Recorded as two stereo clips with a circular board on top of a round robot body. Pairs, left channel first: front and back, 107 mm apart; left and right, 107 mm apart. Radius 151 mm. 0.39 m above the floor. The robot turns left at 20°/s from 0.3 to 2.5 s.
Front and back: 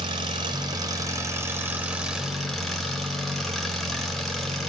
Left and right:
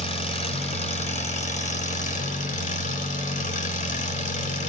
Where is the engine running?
135° left, 1.5 m; by 4.7 s 90° left, 1.5 m.